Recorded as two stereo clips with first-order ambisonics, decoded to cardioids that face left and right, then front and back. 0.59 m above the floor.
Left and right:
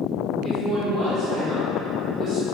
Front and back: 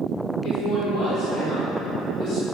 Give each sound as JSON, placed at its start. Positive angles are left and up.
{"t": 0.4, "sound": "a woman speaking", "azimuth_deg": -25, "distance_m": 1.6}